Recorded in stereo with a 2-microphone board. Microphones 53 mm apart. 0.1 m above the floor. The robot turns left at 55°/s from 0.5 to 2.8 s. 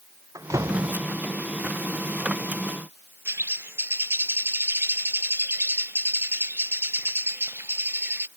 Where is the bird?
45° right (ahead or behind).